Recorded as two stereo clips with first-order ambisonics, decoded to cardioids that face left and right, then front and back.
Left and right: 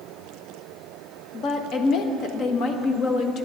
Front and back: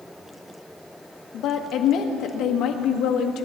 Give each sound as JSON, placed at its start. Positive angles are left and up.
{"t": 1.3, "sound": "a woman speaking", "azimuth_deg": 45, "distance_m": 1.5}